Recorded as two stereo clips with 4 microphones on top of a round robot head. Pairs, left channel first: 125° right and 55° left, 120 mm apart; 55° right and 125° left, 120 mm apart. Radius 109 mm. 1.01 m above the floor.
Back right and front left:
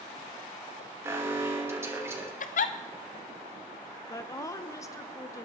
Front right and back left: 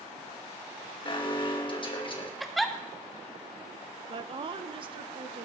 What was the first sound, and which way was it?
An alarm, 10° right.